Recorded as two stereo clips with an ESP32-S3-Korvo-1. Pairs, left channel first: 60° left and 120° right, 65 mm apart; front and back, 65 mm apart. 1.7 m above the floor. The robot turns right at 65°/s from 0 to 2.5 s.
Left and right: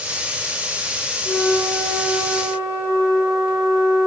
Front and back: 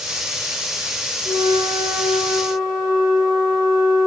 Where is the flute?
10° left, 2.5 m; by 4.1 s 90° left, 2.5 m.